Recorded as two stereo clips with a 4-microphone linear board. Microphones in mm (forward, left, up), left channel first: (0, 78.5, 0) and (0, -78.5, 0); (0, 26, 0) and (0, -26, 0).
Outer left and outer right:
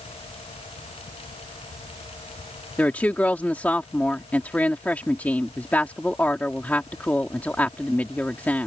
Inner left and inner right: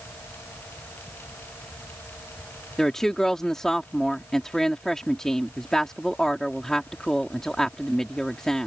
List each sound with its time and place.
2.8 s a woman speaking: 10° left (ahead or behind)